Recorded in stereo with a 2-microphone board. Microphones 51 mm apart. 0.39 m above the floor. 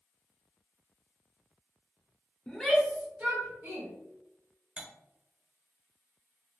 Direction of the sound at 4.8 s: 20° right (ahead or behind).